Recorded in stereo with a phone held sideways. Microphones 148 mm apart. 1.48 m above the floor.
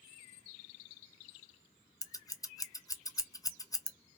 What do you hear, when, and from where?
2.0 s scissors: 25° left (ahead or behind), 0.5 m